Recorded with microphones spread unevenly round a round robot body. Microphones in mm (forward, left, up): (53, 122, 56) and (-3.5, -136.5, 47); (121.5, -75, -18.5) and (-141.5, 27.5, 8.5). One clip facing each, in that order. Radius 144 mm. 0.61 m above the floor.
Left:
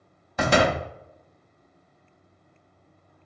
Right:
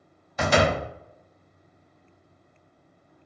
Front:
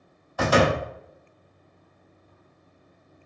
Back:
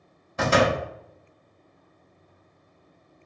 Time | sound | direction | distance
0.4 | a door slam | 90° left | 0.8 m